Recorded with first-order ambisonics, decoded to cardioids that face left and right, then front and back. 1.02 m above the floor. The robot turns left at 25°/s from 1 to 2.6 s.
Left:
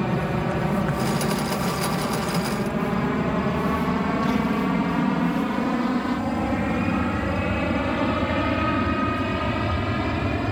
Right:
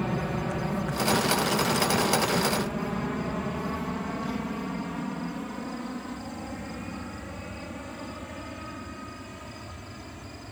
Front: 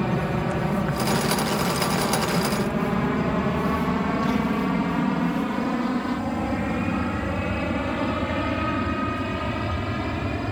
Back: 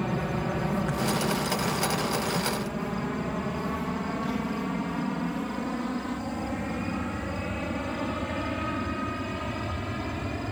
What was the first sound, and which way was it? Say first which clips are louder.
An aircraft: left 5 dB, front 4 dB; 45° left.